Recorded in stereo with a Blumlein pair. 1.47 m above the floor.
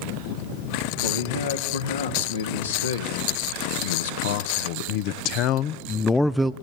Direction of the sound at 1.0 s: 70° left.